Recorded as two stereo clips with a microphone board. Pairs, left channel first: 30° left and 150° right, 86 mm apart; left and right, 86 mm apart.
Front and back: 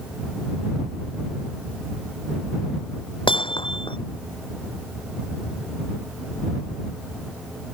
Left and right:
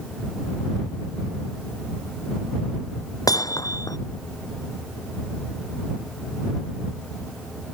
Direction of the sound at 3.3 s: 45° left.